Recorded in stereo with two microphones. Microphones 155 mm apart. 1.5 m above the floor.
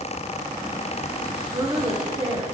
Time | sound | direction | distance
1.5 | a woman speaking | 30° right (ahead or behind) | 1.3 m